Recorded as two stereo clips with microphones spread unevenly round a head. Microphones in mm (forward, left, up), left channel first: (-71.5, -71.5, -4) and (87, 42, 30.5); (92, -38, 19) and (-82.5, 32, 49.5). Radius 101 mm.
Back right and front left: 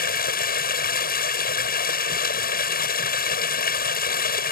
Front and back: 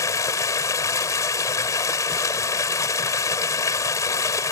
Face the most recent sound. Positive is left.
turn(degrees=-100)